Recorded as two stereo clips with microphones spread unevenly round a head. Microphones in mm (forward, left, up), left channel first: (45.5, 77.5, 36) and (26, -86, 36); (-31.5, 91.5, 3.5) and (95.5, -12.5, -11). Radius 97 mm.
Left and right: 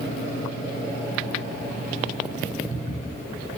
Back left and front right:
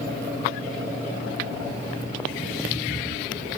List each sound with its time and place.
Only background noise.